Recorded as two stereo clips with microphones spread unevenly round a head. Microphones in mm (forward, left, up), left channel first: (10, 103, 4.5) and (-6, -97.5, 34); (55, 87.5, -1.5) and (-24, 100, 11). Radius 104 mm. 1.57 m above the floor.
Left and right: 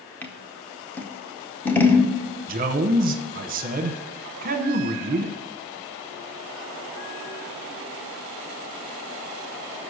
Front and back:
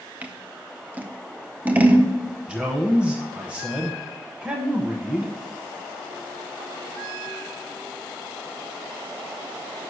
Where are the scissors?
175° left, 0.6 m.